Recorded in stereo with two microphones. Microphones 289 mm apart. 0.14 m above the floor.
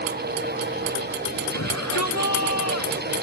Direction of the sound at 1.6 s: 65° left (ahead or behind).